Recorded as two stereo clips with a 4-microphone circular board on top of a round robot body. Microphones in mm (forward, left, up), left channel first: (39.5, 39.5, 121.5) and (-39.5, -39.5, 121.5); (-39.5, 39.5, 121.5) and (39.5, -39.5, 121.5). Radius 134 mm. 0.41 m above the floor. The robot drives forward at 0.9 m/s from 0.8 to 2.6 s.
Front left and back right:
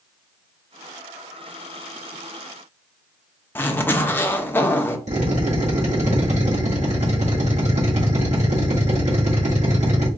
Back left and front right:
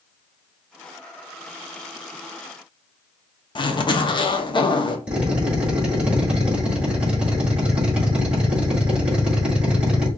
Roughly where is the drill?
Behind right.